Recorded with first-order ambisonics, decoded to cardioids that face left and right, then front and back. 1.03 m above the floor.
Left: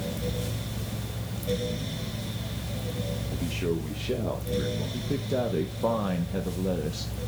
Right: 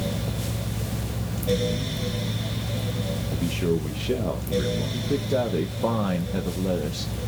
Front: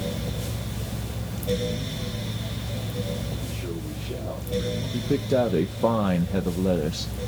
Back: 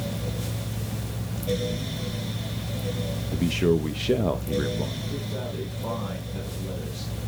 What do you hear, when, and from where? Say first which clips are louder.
3.3 s a man speaking: right 4 dB, back 11 dB; 170° right, 0.8 m
4.9 s a man speaking: right 5 dB, front 11 dB; 10° right, 0.7 m